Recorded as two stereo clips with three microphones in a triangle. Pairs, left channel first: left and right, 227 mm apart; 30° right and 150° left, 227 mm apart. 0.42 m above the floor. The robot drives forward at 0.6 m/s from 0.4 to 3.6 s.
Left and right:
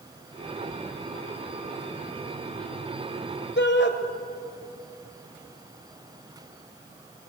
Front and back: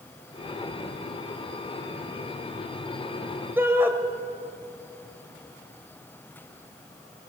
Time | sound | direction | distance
3.6 | a shout | 70° left | 2.5 m